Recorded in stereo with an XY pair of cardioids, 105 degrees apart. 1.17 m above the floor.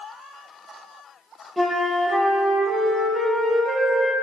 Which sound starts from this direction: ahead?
A flute, at 1.6 s.